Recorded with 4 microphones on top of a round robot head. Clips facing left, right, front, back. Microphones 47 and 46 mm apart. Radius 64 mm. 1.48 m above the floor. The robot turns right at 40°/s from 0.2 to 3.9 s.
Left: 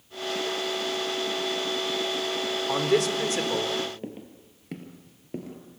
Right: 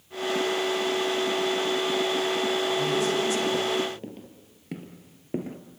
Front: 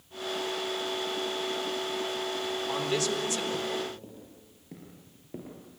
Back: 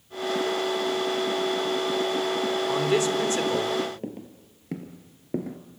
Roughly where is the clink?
I don't hear a clink.